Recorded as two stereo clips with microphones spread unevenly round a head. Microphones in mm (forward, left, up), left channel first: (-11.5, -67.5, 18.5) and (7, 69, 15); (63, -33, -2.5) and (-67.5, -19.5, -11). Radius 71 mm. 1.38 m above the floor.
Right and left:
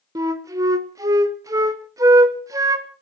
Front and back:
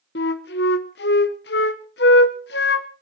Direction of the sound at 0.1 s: 15° left.